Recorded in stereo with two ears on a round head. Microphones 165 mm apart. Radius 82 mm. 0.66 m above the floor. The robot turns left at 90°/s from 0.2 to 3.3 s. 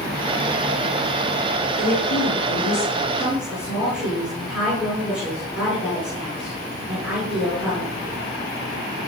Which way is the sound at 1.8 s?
130° left.